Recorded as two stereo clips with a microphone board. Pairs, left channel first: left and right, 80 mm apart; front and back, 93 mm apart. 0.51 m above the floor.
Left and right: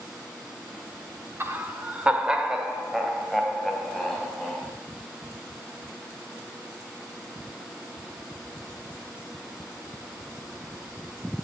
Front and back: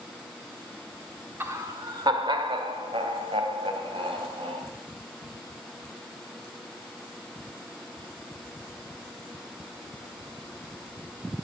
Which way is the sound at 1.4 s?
130° right.